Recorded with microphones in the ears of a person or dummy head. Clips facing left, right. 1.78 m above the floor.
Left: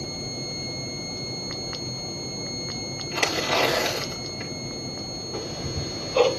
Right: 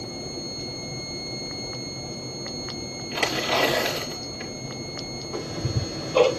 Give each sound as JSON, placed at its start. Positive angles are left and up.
{"t": 3.1, "sound": "tearing paper", "side_deg": -15, "distance_m": 4.0}
{"t": 5.3, "sound": "ticking", "side_deg": -90, "distance_m": 5.5}